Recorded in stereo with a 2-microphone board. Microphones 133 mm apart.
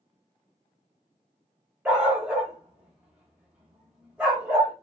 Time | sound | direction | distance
1.9 | a dog barking | 10° right (ahead or behind) | 1.2 m